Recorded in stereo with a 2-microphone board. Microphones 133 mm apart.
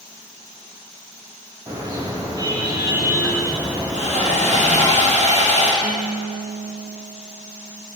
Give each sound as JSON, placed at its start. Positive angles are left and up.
{"t": 1.7, "sound": "a car horn", "side_deg": -30, "distance_m": 5.0}
{"t": 3.9, "sound": "sawing", "side_deg": -60, "distance_m": 4.5}
{"t": 5.8, "sound": "a guitar", "side_deg": -75, "distance_m": 2.0}